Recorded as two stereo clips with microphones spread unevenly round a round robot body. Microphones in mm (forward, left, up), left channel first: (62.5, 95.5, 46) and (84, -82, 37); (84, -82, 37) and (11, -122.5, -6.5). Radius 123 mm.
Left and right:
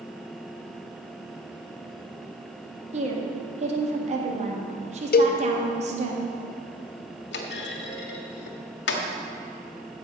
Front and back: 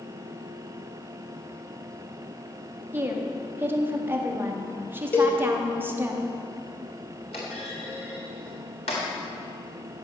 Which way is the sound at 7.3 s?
80° left.